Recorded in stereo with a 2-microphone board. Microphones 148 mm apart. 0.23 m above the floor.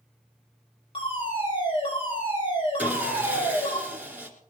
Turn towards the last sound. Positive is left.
turn(degrees=-15)  # may be behind; listen again after turning